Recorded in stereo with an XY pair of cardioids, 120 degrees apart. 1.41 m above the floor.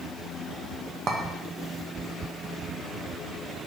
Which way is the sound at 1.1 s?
40° right.